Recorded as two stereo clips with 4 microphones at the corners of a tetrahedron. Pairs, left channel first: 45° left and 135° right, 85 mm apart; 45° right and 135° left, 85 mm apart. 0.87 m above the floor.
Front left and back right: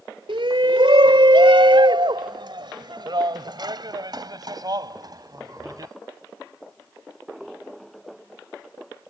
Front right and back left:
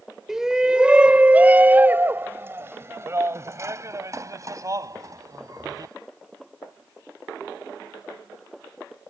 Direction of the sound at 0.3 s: 140° right.